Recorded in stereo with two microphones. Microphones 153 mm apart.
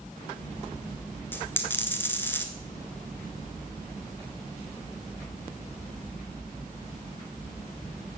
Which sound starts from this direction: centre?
A dropped coin, at 1.3 s.